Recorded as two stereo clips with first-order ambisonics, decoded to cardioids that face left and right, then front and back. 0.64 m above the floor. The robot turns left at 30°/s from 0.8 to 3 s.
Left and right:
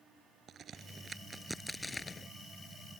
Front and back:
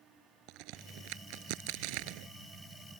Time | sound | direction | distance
0.5 | a crack | 150° right | ?